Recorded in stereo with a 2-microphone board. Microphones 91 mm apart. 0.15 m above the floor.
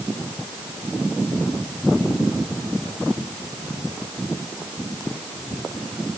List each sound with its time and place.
Only background noise.